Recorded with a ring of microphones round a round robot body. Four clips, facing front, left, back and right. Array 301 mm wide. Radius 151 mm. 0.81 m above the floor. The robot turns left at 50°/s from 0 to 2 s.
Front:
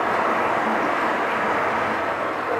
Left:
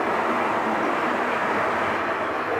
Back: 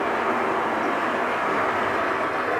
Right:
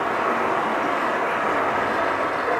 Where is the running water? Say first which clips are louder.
Right 1 dB, front 2 dB; 5° left, 1.7 m; by 2.6 s 95° right, 1.7 m.